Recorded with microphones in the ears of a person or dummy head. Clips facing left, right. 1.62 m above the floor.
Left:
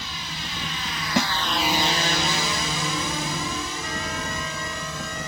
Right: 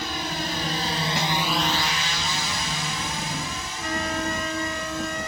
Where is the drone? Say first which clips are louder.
Right 7 dB; 45° right (ahead or behind); by 5.3 s 75° left (ahead or behind).